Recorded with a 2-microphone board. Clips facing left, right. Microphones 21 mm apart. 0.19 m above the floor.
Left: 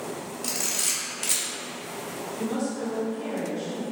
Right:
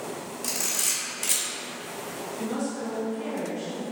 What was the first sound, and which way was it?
A camera shutter, 5° left (ahead or behind).